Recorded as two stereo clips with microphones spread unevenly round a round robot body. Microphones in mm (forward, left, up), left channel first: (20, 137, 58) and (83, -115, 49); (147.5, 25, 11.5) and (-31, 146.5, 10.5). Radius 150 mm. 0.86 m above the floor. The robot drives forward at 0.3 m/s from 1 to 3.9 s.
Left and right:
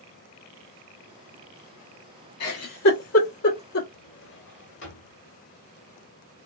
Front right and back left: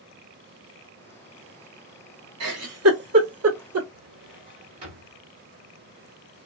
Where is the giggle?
140° left, 1.2 m; by 3.8 s 150° left, 1.5 m.